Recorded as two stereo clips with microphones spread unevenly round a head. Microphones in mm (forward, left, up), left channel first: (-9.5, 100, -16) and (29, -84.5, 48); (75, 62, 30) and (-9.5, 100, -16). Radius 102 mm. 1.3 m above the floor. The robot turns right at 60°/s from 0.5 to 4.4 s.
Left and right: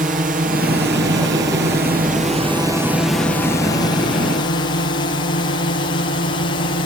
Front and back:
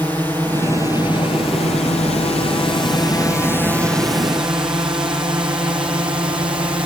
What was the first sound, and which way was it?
A drone, 130° right.